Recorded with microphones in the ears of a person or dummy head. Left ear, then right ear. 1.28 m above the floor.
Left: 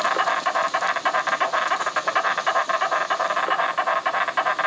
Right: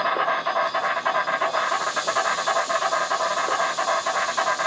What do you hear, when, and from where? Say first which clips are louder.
0.0 s an insect: left 1 dB; 65° left (ahead or behind), 0.8 m